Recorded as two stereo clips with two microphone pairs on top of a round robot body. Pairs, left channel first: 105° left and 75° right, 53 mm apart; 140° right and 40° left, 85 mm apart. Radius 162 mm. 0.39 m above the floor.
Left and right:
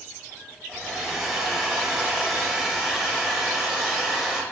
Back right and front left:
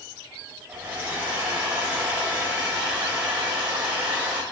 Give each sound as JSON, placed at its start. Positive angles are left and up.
{"t": 0.7, "sound": "a hair dryer", "azimuth_deg": 0, "distance_m": 1.0}